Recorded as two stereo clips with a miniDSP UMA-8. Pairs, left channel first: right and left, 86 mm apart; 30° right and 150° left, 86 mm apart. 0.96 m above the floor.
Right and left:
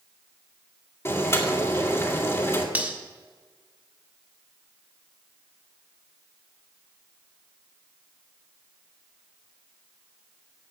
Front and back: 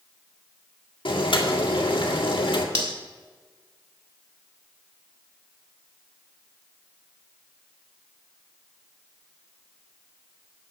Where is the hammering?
No hammering in this recording.